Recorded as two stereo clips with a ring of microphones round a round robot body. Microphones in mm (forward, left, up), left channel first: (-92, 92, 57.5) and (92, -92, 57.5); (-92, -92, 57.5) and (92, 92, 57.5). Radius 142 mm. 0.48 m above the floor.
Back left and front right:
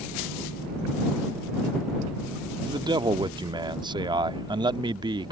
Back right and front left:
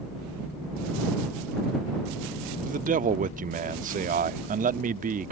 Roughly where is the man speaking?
Ahead.